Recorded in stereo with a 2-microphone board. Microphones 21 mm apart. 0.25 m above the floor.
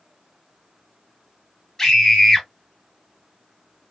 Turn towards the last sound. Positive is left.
turn(degrees=20)  # may be behind; listen again after turning